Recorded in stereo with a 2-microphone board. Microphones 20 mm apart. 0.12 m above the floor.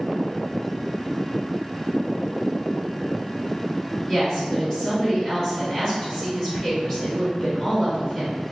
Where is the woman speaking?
25° left (ahead or behind), 1.9 m.